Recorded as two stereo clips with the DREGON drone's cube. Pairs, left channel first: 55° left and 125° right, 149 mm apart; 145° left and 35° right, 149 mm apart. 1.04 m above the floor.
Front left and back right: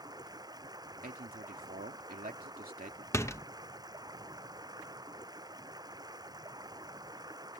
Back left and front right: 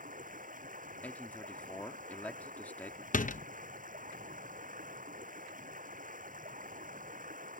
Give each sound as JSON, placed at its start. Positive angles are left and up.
{"t": 0.0, "sound": "running water", "azimuth_deg": -60}
{"t": 1.0, "sound": "a man speaking", "azimuth_deg": -135}
{"t": 3.1, "sound": "a door slam", "azimuth_deg": 125}